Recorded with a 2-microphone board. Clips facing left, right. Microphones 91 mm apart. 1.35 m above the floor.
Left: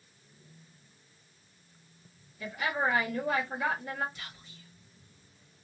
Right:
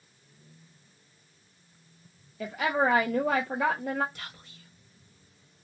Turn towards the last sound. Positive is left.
turn(degrees=-60)  # may be behind; listen again after turning